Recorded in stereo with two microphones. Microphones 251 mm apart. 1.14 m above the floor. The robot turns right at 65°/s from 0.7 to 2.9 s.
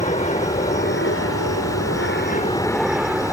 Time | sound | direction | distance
0.0 | an aircraft | 30° left (ahead or behind) | ?